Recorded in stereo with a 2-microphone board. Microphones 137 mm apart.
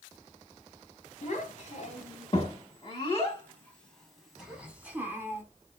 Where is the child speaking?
50° left (ahead or behind), 1.6 m; by 5.4 s 20° right (ahead or behind), 1.6 m.